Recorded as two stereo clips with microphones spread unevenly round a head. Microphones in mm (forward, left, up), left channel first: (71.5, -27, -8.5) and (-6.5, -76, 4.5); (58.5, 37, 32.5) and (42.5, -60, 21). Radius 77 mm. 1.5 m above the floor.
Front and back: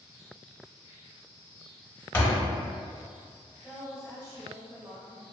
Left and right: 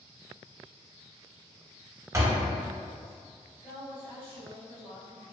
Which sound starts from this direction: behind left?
A woman speaking, at 3.6 s.